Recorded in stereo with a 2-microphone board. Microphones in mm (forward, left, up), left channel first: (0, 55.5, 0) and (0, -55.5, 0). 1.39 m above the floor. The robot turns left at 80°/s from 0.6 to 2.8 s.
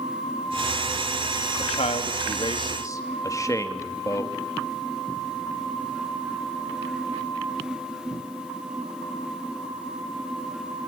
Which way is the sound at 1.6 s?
55° left (ahead or behind).